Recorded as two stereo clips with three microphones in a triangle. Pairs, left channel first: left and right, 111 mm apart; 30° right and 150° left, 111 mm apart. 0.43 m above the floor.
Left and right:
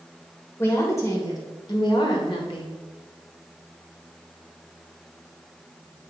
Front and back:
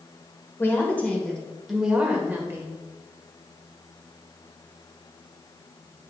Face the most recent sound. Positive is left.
turn(degrees=90)